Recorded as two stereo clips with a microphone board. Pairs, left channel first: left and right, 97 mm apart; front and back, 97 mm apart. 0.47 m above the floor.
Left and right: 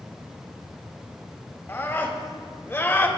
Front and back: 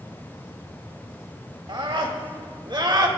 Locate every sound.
1.7 s a scream: 155° left, 2.5 m; by 3.1 s 150° left, 1.9 m